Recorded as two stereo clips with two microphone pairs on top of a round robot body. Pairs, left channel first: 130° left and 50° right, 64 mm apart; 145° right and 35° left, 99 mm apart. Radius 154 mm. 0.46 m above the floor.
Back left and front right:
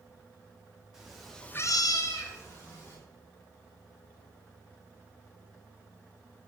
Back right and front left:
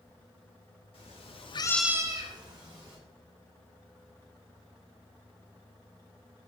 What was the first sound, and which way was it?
A cat meowing, 125° right.